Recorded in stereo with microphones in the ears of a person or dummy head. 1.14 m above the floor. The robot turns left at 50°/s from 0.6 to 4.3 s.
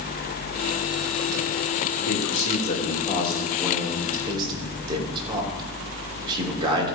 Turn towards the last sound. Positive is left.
turn(degrees=-25)